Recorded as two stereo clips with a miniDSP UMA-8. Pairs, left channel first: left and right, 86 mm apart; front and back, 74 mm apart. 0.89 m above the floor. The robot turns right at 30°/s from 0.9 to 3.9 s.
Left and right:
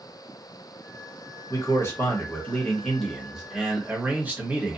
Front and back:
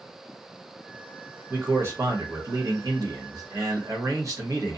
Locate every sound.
1.5 s a man speaking: 130° left, 1.1 m; by 4.8 s 155° right, 1.1 m